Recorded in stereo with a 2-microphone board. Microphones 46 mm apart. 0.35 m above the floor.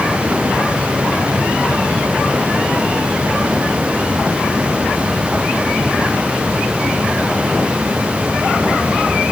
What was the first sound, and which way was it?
Only background noise.